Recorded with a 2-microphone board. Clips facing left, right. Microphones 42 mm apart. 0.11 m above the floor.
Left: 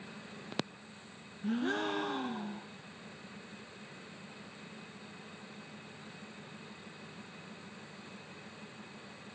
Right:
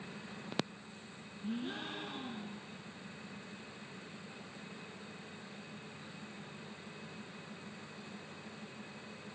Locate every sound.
1.4 s a gasp: 75° left (ahead or behind), 2 m